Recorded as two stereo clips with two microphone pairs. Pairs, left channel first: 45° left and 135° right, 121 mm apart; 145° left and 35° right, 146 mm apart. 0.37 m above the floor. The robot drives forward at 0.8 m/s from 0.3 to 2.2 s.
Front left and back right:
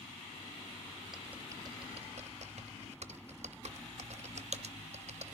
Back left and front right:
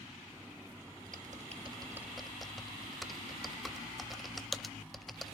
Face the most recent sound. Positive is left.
turn(degrees=-125)